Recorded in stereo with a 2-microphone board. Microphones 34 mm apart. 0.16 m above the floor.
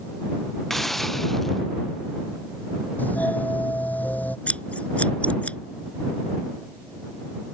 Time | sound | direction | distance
0.7 | a hiss | 10° left (ahead or behind) | ?
3.0 | a doorbell | 55° left (ahead or behind) | ?
4.5 | scissors | 45° left (ahead or behind) | ?